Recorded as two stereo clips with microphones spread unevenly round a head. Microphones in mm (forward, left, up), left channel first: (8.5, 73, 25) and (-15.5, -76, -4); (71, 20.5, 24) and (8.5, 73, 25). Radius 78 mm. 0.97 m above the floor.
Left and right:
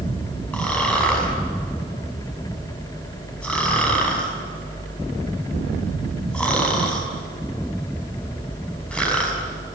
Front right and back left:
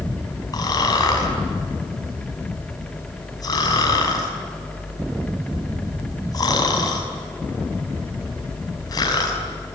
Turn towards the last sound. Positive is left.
turn(degrees=0)